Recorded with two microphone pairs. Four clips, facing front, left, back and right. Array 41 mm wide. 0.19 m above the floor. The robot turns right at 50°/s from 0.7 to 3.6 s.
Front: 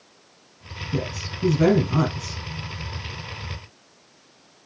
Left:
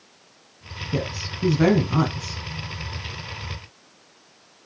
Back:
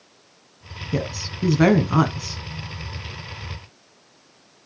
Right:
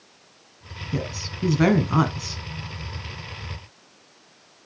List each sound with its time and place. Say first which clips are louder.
0.9 s a woman speaking: left 2 dB, back 2 dB; 165° left, 1.2 m; by 2.4 s 120° right, 1.2 m